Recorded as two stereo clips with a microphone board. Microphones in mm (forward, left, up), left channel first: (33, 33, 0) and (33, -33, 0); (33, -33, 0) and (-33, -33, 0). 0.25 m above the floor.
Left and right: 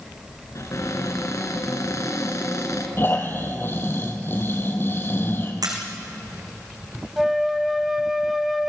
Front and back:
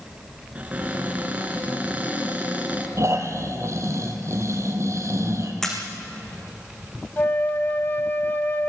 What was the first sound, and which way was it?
A cupboard door, 115° left.